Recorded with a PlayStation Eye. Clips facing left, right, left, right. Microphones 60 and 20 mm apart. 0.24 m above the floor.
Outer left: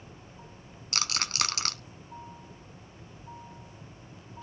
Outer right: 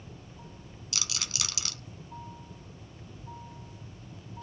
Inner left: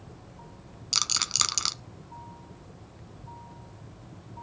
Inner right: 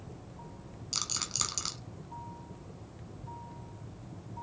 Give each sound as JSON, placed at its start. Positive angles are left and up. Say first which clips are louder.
{"t": 0.9, "sound": "a rattle", "louder": "outer left 7 dB, inner left 8 dB", "side_deg": 50, "distance_m": 0.8}